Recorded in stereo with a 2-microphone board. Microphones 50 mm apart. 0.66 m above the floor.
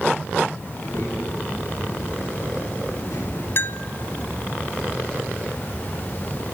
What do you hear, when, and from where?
0.7 s a child speaking: 80° left, 9.5 m
3.6 s a bell: 50° left (ahead or behind), 0.8 m